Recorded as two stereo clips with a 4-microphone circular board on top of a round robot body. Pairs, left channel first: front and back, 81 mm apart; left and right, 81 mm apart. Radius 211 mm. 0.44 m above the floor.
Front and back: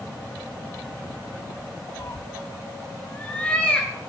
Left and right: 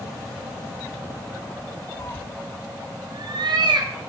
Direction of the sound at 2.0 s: 50° left.